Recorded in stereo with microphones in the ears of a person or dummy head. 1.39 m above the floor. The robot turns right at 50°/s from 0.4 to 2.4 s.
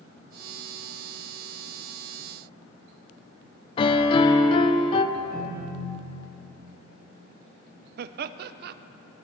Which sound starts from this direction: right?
Laughter, at 8.0 s.